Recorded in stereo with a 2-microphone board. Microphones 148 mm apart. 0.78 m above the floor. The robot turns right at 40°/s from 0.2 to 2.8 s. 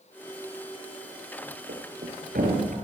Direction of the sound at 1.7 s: 70° right (ahead or behind).